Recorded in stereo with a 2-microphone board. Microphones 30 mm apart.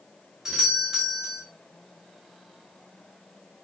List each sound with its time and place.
0.5 s a doorbell: 15° right (ahead or behind), 0.9 m